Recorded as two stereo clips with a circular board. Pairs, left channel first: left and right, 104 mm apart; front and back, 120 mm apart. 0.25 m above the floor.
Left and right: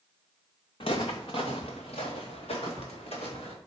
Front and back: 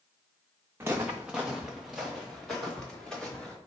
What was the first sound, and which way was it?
Footsteps, 110° left.